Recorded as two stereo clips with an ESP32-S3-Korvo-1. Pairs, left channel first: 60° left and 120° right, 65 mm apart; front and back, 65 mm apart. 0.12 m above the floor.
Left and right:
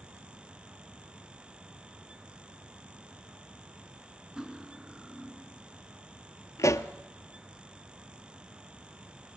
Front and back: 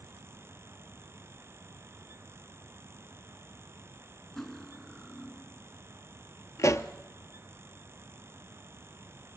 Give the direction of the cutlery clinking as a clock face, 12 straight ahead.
2 o'clock.